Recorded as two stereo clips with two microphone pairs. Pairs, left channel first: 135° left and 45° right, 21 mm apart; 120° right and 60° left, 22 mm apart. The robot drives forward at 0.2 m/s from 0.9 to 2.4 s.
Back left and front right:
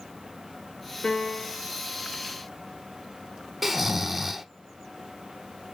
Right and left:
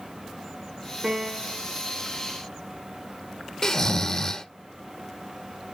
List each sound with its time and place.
1.0 s a piano: 125° left, 3 m
3.6 s snoring: 125° right, 0.6 m